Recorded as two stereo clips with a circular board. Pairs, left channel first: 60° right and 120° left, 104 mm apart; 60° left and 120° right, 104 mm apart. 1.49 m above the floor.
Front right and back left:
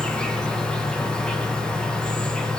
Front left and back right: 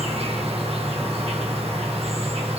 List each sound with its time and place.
0.0 s an insect: 140° right, 1.4 m